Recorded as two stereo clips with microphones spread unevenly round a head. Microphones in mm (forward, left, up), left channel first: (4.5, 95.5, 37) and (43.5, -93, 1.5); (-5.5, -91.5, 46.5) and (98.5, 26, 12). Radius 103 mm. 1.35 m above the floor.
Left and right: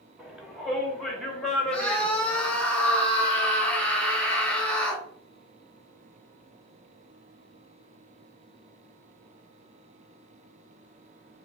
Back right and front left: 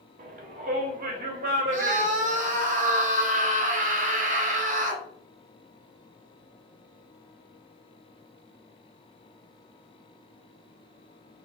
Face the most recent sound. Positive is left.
turn(degrees=15)